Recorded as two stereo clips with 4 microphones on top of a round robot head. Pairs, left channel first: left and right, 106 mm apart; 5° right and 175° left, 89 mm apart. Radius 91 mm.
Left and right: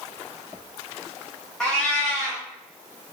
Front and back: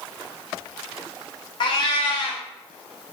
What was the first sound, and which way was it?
A cat meowing, 5° left.